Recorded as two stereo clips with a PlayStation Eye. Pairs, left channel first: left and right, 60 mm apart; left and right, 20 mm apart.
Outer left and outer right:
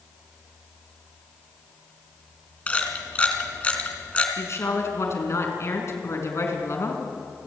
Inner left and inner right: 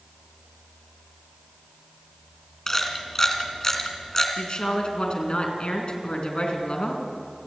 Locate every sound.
2.7 s a camera shutter: 20° left (ahead or behind), 2.5 m
4.4 s a woman speaking: 50° left (ahead or behind), 4.5 m